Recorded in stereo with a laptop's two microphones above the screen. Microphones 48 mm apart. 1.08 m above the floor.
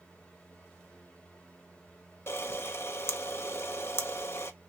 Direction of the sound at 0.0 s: 20° left (ahead or behind).